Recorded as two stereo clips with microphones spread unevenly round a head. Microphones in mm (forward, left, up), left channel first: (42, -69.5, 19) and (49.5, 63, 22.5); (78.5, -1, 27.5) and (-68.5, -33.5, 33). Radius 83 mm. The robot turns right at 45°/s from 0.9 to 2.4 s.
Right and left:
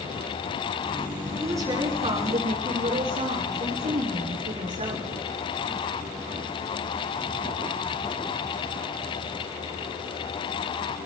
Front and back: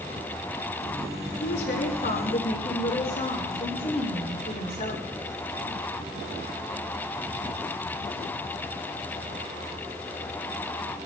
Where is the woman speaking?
20° left, 8.5 m; by 5.0 s 65° left, 8.5 m.